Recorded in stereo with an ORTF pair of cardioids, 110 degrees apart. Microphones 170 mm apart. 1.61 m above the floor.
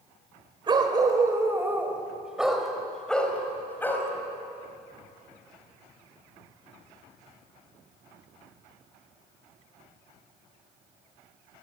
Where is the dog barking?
30° right, 3.5 m; by 4.1 s 15° left, 5 m.